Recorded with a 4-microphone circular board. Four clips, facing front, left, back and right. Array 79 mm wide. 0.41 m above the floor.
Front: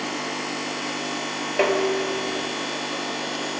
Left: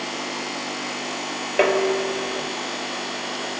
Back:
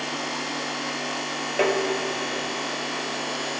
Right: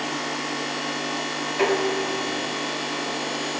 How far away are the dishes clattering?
About 1.4 m.